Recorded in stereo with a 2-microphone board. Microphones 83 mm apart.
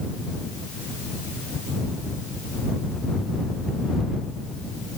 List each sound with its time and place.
Only background noise.